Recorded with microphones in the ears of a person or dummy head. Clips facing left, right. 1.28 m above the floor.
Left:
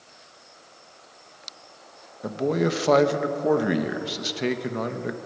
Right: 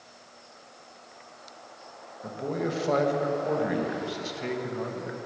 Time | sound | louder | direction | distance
2.2 | a man speaking | left 7 dB | 80° left | 1.0 m